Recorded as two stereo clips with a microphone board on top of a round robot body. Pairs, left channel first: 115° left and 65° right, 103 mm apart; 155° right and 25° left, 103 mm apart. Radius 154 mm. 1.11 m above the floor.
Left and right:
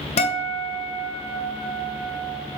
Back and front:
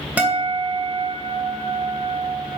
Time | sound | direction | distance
0.2 | a guitar | 100° left | 2.5 m